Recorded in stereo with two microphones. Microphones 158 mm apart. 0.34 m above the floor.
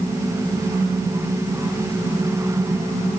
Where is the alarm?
No alarm in this recording.